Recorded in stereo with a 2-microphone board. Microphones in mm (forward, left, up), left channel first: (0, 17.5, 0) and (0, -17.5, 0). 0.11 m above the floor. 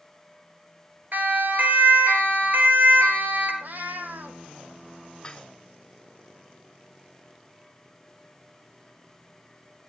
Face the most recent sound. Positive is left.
turn(degrees=20)  # may be behind; listen again after turning